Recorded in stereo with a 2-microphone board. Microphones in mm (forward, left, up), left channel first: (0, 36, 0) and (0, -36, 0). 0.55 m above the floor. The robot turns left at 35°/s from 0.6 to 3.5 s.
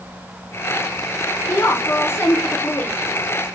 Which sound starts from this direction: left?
A woman speaking, at 1.5 s.